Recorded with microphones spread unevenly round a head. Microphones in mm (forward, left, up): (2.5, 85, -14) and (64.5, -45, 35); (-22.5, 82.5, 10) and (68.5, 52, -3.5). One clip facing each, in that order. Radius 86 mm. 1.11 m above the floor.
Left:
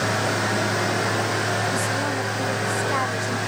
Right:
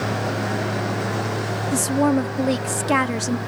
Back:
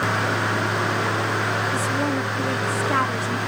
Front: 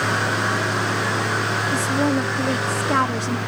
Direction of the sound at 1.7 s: 90° right.